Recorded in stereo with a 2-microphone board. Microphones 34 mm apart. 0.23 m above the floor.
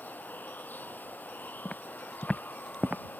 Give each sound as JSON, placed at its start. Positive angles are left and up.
{"t": 0.0, "sound": "running water", "side_deg": 60}
{"t": 1.6, "sound": "footsteps", "side_deg": 35}